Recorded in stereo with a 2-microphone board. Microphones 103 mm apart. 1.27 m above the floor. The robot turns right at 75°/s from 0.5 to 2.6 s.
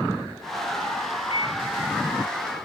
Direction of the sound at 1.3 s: 60° left (ahead or behind).